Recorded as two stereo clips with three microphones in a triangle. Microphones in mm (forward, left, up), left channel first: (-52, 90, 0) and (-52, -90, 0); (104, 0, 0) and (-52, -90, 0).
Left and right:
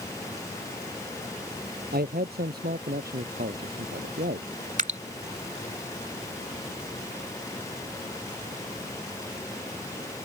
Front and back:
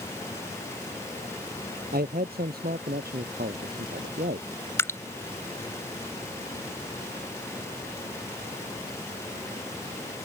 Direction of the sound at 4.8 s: 45° right.